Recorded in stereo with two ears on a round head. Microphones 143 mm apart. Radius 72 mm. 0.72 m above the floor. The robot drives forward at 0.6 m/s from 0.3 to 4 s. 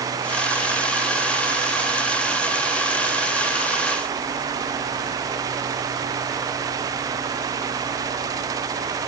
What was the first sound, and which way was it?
Only background noise.